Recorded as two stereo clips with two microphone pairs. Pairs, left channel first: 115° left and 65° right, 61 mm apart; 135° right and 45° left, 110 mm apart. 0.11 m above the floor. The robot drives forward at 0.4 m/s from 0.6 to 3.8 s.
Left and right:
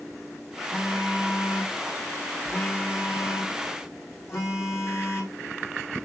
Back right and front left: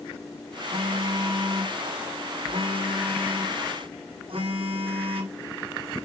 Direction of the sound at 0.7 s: 60° left.